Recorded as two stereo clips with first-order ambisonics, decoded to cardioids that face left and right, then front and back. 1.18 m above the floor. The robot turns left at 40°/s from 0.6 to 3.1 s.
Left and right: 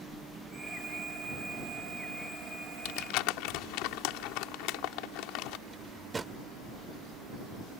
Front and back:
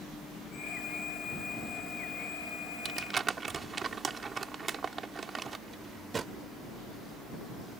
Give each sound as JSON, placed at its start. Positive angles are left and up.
{"t": 0.0, "sound": "a helicopter", "azimuth_deg": -45}
{"t": 2.9, "sound": "crumpling", "azimuth_deg": 120}
{"t": 5.7, "sound": "a drawer", "azimuth_deg": -140}